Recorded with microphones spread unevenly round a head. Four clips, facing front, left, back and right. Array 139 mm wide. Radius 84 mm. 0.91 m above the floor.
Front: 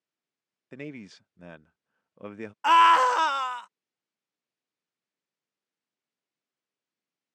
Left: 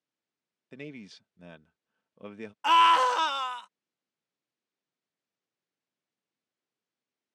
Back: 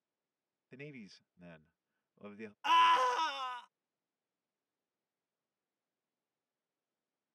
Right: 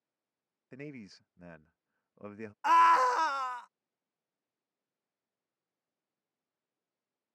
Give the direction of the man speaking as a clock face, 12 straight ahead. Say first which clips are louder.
Left 2 dB, front 10 dB; 11 o'clock.